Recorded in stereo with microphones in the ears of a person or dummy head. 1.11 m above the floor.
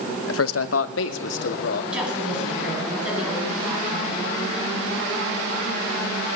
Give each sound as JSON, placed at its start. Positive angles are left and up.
{"t": 0.3, "sound": "a man speaking", "side_deg": 75, "distance_m": 0.8}
{"t": 1.9, "sound": "a woman speaking", "side_deg": -5, "distance_m": 9.0}